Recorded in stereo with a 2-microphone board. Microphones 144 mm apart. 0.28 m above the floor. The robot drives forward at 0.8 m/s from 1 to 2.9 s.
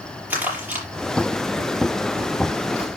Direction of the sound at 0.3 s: 10° right (ahead or behind).